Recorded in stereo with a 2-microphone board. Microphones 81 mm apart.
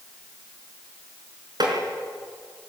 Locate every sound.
1.6 s tapping: 60° right (ahead or behind), 4.5 m